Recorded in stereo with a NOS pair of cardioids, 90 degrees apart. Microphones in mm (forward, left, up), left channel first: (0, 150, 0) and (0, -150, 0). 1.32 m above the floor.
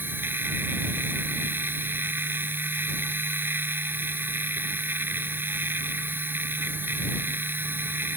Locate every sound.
0.0 s a machine running: 5° right